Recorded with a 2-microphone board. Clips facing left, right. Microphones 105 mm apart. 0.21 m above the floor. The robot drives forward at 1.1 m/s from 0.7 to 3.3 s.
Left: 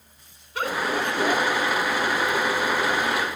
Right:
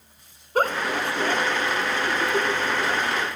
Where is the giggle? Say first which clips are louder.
Right 2 dB; 45° right (ahead or behind), 1.2 m; by 3.3 s 15° right (ahead or behind), 3.5 m.